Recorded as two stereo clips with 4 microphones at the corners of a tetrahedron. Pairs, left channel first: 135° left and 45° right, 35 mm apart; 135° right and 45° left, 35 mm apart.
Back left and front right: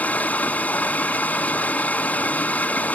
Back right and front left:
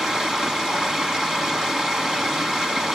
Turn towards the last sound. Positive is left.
turn(degrees=115)